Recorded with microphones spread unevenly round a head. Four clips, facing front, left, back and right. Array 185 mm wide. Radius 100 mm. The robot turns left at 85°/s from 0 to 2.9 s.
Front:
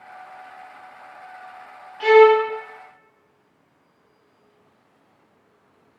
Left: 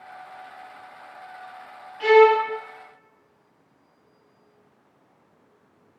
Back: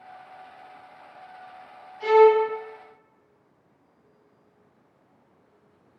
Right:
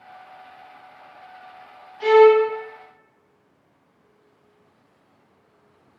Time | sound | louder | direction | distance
2.0 | a violin | right 2 dB, front 4 dB | 5° right | 1.0 m